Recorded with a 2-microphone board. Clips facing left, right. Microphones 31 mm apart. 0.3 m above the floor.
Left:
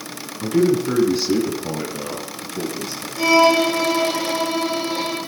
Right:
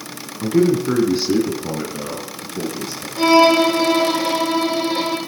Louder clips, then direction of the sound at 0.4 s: Right 1 dB; 10° right (ahead or behind).